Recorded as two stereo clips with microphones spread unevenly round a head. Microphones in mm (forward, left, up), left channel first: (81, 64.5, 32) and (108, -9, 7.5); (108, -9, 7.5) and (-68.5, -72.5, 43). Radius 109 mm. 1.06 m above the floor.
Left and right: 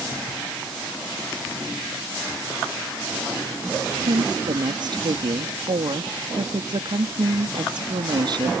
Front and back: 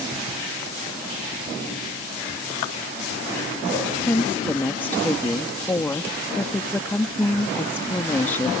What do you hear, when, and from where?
4.1 s a woman speaking: 60° right